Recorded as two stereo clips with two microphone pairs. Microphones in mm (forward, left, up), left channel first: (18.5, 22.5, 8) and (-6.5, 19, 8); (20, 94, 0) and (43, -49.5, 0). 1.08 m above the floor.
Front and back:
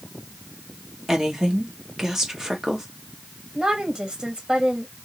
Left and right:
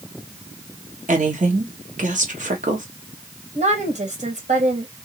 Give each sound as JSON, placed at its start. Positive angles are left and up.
{"t": 1.1, "sound": "a woman speaking", "azimuth_deg": -100, "distance_m": 1.4}
{"t": 3.5, "sound": "a woman speaking", "azimuth_deg": -110, "distance_m": 1.6}